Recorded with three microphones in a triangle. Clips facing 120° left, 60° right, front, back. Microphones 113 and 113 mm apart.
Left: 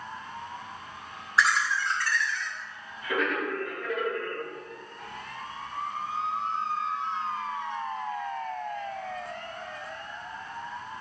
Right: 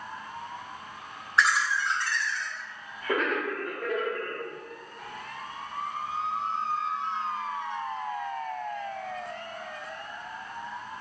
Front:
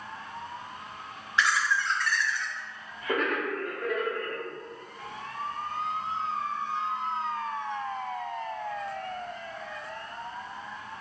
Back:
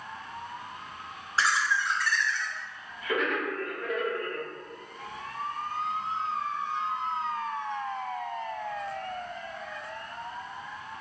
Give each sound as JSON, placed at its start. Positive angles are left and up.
{"t": 1.4, "sound": "laughter", "azimuth_deg": -150, "distance_m": 0.7}